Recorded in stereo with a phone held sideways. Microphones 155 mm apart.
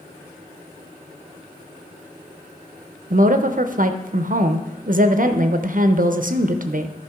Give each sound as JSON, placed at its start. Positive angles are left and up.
{"t": 3.1, "sound": "a woman speaking", "side_deg": -60, "distance_m": 0.6}